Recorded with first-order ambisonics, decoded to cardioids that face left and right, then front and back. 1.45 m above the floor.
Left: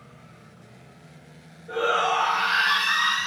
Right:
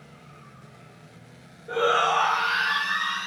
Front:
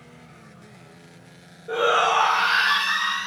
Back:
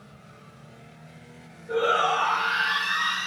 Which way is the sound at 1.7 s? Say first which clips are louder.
Right 1 dB, front 3 dB; 15° right.